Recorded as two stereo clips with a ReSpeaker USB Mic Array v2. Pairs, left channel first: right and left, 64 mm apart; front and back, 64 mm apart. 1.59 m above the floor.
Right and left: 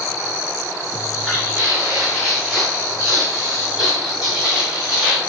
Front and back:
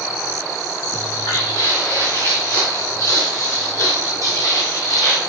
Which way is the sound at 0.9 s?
Straight ahead.